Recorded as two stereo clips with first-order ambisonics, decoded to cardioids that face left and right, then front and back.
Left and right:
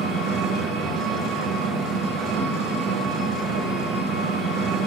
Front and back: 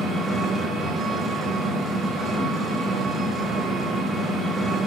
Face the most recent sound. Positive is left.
turn(degrees=-95)